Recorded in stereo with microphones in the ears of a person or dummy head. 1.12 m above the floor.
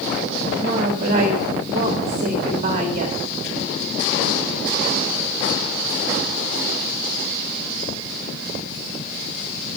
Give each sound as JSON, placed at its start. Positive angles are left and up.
{"t": 0.6, "sound": "a woman speaking", "side_deg": -35, "distance_m": 2.0}